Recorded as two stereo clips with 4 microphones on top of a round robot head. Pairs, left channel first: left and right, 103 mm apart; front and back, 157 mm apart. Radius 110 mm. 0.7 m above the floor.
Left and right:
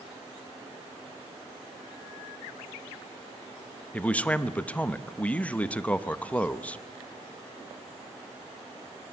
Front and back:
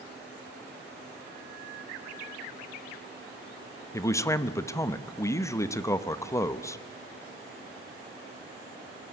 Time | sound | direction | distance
3.9 | a man speaking | 35° left | 0.9 m